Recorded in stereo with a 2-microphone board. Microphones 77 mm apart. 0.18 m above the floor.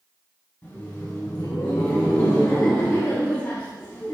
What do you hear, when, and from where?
0.6 s laughter: 30° left (ahead or behind), 1.2 m